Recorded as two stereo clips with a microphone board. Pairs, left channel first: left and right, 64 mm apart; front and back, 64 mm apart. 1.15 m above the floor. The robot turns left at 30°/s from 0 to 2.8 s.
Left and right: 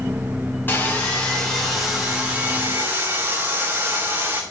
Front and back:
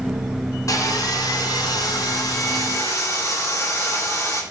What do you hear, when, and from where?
0.7 s sawing: 35° left, 3 m; by 4.4 s 30° right, 3 m